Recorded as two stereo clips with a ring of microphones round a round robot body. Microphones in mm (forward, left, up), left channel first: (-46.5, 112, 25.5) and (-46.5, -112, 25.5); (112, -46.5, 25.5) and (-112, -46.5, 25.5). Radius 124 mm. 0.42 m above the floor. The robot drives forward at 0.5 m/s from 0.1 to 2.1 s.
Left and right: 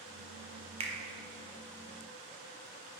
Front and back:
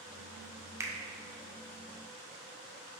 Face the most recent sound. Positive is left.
turn(degrees=-160)